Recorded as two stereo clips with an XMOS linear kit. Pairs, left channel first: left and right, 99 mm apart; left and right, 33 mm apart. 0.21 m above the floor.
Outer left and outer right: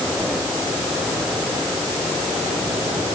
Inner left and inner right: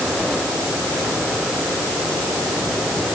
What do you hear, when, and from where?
Only background noise.